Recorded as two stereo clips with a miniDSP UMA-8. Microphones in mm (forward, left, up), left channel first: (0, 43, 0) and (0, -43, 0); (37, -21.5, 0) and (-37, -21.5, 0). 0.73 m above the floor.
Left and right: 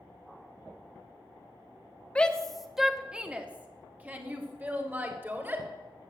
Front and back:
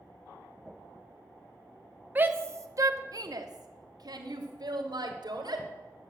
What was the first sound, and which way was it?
A shout, 150° left.